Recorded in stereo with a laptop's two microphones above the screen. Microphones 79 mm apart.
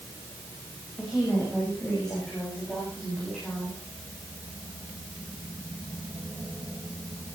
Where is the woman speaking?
5° left (ahead or behind), 5.5 m; by 3.8 s 10° left (ahead or behind), 8 m.